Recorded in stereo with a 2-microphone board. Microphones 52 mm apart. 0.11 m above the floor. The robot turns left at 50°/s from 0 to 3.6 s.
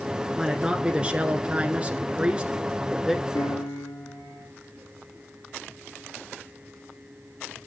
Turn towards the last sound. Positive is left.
turn(degrees=85)